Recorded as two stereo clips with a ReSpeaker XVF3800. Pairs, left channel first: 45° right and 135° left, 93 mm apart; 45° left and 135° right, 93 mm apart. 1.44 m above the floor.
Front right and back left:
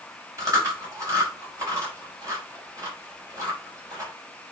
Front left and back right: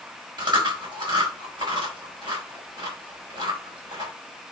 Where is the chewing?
170° right, 4.5 m.